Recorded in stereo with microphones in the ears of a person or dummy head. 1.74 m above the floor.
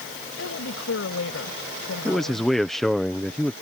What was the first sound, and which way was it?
A woman speaking, 70° left (ahead or behind).